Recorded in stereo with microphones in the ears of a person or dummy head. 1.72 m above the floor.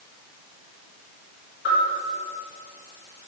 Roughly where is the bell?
Left.